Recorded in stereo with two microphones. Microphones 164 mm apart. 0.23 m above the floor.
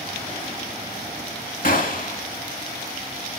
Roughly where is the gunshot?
Left.